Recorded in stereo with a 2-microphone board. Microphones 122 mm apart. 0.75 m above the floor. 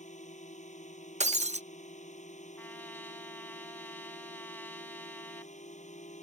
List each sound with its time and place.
0.0 s a drone: 80° left
1.2 s breaking glass: 70° right (ahead or behind)
2.6 s a trumpet: 15° left (ahead or behind)